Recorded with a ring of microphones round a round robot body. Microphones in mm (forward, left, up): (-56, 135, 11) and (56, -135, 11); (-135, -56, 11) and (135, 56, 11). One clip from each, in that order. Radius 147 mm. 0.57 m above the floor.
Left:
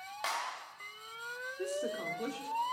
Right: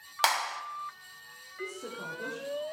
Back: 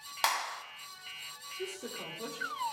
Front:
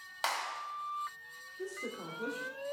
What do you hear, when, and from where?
0.2 s a clap: 90° right, 1.7 m
1.6 s a woman speaking: 120° left, 1.6 m